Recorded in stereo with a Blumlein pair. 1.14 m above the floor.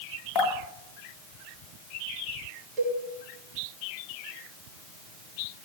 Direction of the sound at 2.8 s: 30° right.